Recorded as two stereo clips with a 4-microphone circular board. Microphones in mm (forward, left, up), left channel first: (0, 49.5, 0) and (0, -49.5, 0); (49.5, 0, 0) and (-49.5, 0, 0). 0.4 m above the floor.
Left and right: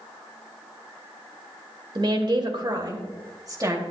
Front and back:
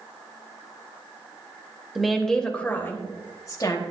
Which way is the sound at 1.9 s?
95° right.